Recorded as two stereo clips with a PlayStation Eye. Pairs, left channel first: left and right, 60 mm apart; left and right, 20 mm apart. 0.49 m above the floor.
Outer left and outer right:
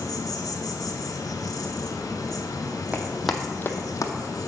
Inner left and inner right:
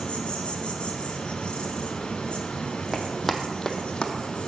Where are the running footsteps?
25° right (ahead or behind), 1.4 m; by 4.1 s 65° left (ahead or behind), 1.2 m.